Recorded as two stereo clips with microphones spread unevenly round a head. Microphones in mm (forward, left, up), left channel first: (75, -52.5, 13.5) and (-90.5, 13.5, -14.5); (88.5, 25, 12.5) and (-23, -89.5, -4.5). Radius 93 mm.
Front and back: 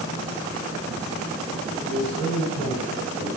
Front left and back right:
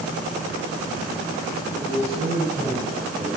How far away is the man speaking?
About 9.5 m.